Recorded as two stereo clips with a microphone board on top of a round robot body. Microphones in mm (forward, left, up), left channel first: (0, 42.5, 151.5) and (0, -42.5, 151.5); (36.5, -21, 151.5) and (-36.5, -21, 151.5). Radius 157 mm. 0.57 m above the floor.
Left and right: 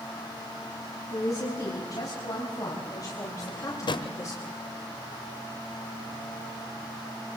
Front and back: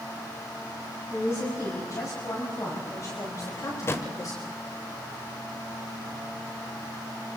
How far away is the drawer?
About 1.1 m.